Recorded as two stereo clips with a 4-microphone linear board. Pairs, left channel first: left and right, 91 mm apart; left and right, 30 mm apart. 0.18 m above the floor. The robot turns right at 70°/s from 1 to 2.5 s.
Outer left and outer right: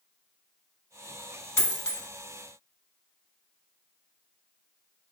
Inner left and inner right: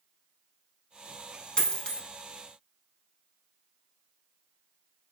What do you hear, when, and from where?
1.6 s a dropped coin: 45° left, 0.7 m; by 2.0 s 75° left, 0.7 m